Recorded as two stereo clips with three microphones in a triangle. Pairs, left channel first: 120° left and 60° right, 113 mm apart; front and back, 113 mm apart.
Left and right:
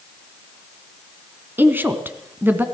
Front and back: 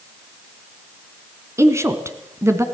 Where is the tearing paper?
I don't hear tearing paper.